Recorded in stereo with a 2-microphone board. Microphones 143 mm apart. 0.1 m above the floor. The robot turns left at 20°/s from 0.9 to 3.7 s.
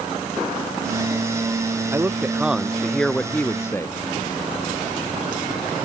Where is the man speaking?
165° right; by 3.9 s 160° left.